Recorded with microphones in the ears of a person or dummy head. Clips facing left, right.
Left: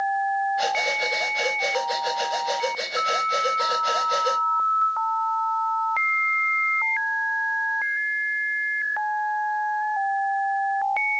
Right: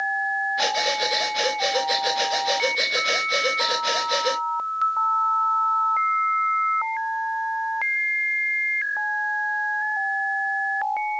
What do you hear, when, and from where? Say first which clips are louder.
0.6 s breathing: right 1 dB; 30° right (ahead or behind), 0.8 m